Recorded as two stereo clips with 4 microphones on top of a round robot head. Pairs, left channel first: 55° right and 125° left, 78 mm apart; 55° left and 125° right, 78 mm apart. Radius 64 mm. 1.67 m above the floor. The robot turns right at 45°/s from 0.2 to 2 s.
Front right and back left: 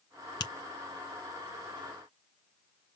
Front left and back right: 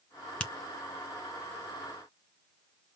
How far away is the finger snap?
About 1.0 m.